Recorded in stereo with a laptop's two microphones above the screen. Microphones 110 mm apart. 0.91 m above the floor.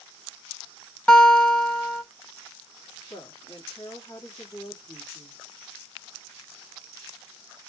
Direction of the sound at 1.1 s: 10° left (ahead or behind).